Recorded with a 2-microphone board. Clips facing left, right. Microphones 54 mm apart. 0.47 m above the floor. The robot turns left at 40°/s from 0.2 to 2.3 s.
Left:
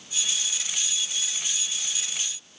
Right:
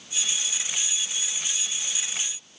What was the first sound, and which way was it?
Only background noise.